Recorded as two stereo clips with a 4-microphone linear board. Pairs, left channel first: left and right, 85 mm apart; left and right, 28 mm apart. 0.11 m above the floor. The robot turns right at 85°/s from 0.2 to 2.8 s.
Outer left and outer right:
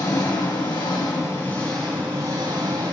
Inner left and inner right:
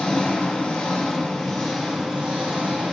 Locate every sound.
0.0 s an engine running: 45° left, 6 m; by 2.9 s 90° right, 6 m